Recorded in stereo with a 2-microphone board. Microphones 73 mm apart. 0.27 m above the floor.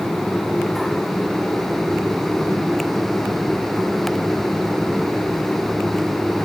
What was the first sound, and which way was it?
Only background noise.